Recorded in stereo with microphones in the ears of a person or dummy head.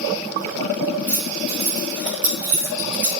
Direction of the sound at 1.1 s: 15° left (ahead or behind).